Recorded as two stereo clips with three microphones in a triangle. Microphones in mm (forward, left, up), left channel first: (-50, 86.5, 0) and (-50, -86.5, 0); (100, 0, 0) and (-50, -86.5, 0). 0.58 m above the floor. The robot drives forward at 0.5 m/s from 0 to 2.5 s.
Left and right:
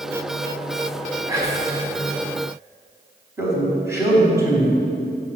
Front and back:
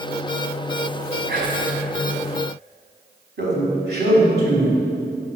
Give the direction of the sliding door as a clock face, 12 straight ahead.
No sliding door in this recording.